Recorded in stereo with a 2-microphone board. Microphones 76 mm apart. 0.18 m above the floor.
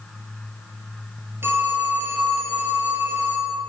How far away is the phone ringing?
About 2 m.